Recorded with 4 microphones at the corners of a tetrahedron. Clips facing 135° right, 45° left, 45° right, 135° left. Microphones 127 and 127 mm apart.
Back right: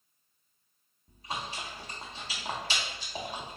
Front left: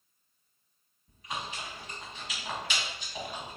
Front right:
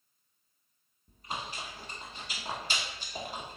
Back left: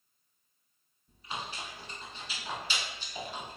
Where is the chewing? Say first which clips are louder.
Back right 1 dB, front right 1 dB; 80° right, 0.7 m.